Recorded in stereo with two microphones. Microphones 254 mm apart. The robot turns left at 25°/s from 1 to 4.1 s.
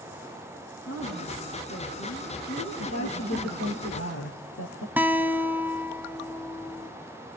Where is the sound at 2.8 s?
100° left, 4 m; by 4.9 s 65° left, 4 m.